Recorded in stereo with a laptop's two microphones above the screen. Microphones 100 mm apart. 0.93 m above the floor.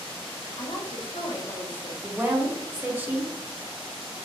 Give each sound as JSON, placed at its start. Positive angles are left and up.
{"t": 0.6, "sound": "a woman speaking", "side_deg": 55, "distance_m": 1.3}
{"t": 2.0, "sound": "a woman speaking", "side_deg": -15, "distance_m": 1.3}